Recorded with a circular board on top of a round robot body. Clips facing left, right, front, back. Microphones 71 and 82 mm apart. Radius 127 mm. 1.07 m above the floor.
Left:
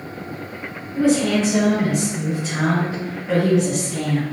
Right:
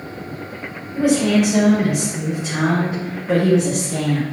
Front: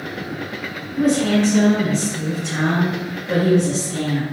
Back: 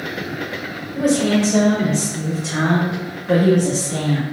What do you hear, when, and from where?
0.9 s a woman speaking: 170° right, 3 m; by 4.2 s 115° right, 0.9 m